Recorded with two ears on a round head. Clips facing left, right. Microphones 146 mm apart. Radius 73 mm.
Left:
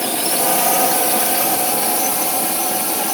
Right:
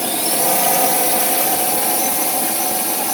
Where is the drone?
5° right (ahead or behind).